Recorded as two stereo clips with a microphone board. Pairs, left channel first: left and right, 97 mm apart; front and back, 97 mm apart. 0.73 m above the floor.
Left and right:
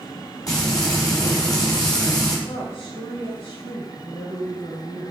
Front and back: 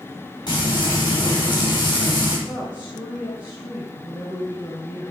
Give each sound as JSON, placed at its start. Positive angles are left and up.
{"t": 0.5, "sound": "frying", "azimuth_deg": 40, "distance_m": 4.0}
{"t": 2.5, "sound": "a woman speaking", "azimuth_deg": 65, "distance_m": 3.0}